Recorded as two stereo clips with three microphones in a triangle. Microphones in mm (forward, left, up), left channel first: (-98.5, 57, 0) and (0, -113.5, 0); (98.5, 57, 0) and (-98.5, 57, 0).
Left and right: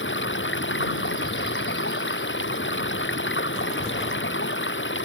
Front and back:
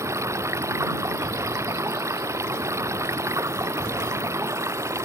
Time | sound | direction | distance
0.0 | running water | 105° left | ?